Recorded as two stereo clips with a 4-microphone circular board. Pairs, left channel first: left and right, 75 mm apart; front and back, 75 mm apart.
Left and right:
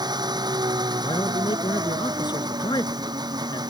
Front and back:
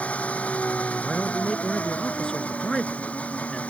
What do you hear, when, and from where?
0.0 s an engine running: 70° right
1.0 s a man speaking: 80° left